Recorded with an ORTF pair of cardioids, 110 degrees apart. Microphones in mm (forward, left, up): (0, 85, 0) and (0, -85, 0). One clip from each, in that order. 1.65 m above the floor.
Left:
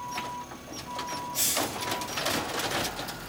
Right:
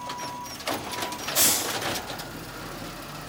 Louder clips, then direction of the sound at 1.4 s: Right 5 dB; 45° right.